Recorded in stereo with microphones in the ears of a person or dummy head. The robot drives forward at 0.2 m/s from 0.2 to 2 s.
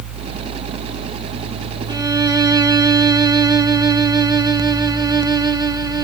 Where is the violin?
20° right (ahead or behind), 0.5 m.